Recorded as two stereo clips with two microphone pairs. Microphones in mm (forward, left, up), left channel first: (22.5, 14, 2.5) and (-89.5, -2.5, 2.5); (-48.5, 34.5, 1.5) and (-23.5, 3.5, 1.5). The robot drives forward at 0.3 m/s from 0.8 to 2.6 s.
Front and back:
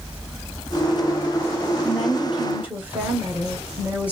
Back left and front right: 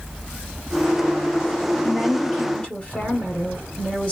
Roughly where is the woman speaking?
Behind left.